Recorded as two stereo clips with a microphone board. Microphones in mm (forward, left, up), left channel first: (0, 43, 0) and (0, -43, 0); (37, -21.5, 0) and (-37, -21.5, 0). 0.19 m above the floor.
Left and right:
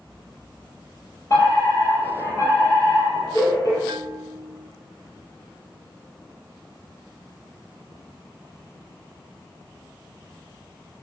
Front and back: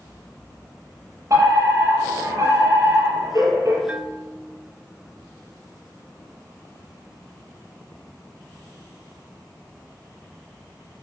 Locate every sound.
1.3 s a fire alarm: 140° left, 8 m
3.9 s a bell: 110° right, 0.9 m